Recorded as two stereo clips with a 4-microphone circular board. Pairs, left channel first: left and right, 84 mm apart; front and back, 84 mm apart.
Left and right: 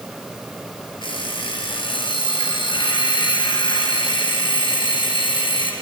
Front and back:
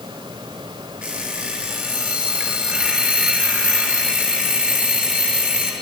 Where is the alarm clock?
100° left, 4 m.